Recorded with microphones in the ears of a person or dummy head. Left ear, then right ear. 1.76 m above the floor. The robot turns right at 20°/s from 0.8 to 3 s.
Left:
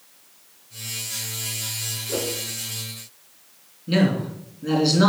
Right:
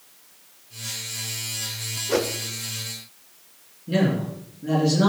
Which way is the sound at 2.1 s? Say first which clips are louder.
Right 5 dB; 45° right (ahead or behind).